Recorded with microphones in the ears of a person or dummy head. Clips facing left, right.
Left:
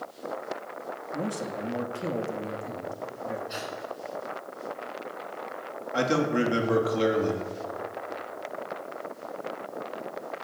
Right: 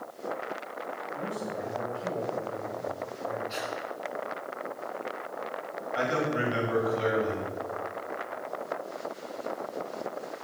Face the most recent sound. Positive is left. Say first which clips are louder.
# left 4 dB
turn(degrees=75)  # may be behind; listen again after turning